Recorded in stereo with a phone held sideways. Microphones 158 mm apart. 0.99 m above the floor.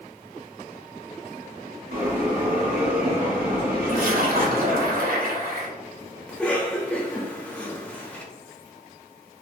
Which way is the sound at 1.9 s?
65° right (ahead or behind).